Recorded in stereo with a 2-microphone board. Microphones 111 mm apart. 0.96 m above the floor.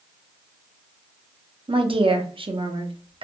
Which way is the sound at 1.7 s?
50° right (ahead or behind).